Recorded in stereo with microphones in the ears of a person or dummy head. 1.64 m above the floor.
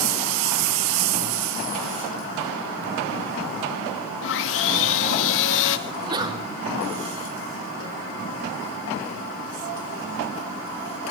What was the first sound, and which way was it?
Sawing, 70° left (ahead or behind).